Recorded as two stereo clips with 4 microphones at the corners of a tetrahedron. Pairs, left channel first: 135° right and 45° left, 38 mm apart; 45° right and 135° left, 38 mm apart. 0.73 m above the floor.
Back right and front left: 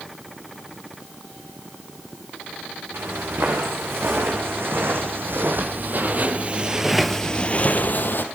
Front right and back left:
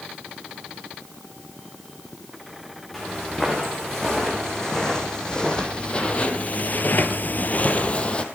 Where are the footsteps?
35° left, 5 m; by 8.2 s 110° right, 1.8 m.